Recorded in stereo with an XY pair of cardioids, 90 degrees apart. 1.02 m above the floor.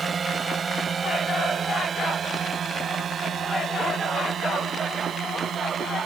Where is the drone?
45° right; by 6.1 s 70° right.